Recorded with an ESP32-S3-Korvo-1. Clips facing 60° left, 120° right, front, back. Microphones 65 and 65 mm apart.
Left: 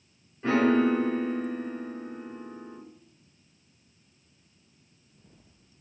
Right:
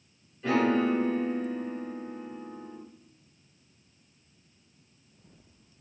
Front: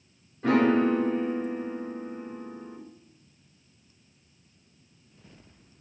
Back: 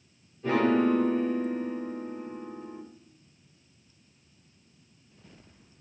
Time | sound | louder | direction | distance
0.4 | a piano | left 2 dB, front 2 dB | 5° left | 1.5 m